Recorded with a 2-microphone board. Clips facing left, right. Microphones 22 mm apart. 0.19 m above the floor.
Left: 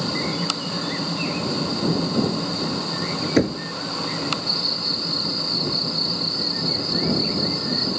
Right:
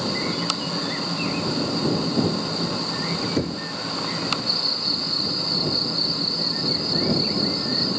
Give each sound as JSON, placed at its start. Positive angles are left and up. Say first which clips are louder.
{"t": 3.4, "sound": "knocking", "louder": "left 5 dB", "side_deg": 50}